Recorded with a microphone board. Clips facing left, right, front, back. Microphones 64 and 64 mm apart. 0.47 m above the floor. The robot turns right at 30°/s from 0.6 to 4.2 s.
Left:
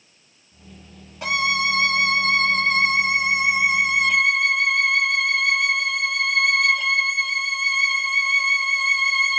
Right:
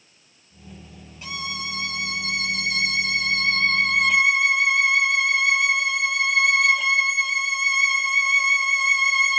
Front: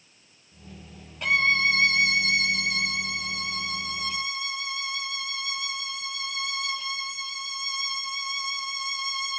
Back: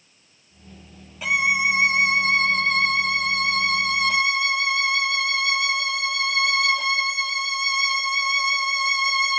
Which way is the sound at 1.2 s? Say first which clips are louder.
Left 11 dB, back 1 dB; 95° left.